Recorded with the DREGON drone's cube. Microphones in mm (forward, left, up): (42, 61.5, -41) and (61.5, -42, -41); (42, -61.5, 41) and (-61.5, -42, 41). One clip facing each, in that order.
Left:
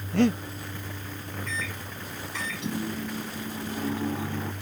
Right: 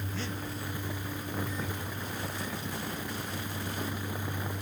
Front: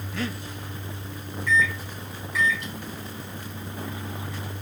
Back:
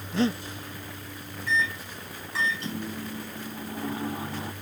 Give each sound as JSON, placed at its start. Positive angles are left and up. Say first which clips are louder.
{"t": 0.1, "sound": "breathing", "louder": "left 18 dB, back 7 dB", "azimuth_deg": 110}
{"t": 1.5, "sound": "a microwave", "louder": "even, front 4 dB", "azimuth_deg": 110}